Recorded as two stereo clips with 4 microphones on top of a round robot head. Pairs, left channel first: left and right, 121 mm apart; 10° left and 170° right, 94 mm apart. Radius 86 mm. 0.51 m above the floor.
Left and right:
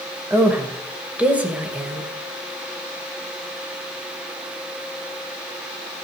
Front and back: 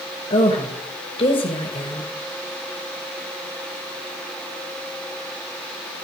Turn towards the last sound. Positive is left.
turn(degrees=-10)